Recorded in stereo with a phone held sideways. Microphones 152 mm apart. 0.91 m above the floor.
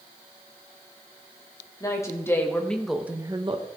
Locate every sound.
1.8 s a woman speaking: 20° left (ahead or behind), 2.5 m; by 3.7 s 40° right (ahead or behind), 1.1 m